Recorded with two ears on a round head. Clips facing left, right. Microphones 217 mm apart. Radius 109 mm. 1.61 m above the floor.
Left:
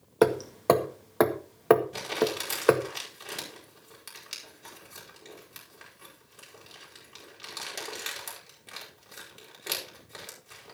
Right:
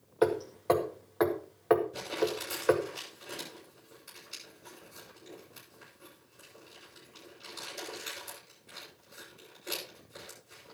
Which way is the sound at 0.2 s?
65° left (ahead or behind).